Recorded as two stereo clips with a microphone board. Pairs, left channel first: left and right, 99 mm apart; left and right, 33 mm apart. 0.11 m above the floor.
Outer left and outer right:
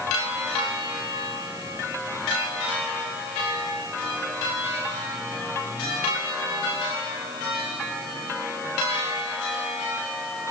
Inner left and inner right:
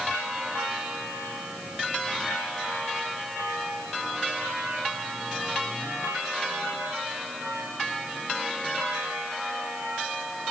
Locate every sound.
Only background noise.